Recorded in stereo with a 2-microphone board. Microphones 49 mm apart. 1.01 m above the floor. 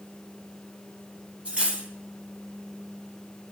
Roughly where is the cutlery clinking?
Right.